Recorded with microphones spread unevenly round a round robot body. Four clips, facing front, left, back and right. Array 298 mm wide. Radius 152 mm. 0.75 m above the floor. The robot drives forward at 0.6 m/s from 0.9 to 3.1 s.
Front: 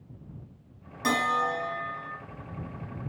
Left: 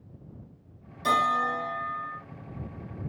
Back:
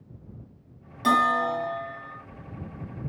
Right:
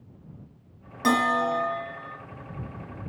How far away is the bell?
About 3.5 m.